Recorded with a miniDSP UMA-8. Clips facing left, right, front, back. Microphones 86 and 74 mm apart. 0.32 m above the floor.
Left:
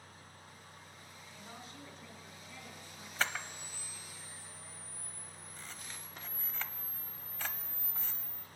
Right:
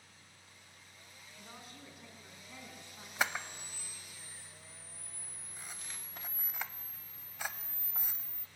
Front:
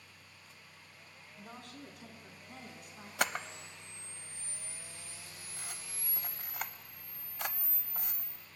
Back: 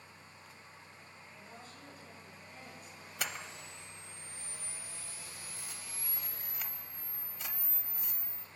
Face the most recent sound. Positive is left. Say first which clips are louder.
# right 1 dB, front 7 dB
turn(degrees=-15)